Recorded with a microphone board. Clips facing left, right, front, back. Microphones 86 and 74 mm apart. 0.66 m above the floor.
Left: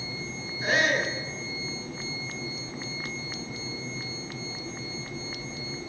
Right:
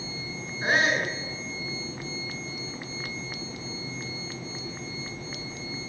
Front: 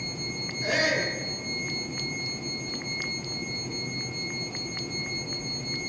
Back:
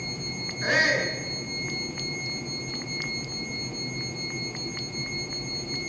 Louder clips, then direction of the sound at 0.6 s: Right 1 dB, back 2 dB; 150° right.